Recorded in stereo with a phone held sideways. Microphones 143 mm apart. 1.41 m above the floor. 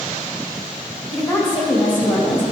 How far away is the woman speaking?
About 2.5 m.